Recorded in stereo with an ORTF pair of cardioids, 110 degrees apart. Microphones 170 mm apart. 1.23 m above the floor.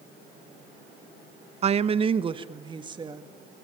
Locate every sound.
1.6 s a woman speaking: 40° right, 0.8 m; by 3.5 s 25° right, 2.5 m